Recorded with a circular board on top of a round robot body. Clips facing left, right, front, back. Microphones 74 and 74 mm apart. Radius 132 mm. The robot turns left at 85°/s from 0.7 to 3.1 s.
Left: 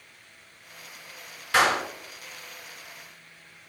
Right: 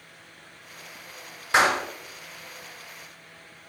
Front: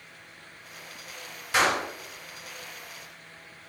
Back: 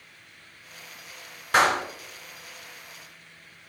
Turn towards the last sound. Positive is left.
turn(degrees=75)